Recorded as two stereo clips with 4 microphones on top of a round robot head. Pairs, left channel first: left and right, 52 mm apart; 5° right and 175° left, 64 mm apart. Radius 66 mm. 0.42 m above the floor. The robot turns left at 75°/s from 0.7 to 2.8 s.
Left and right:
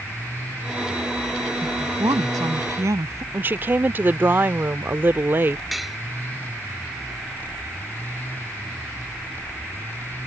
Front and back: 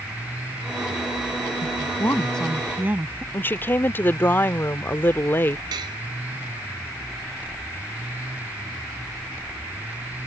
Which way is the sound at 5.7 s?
Straight behind.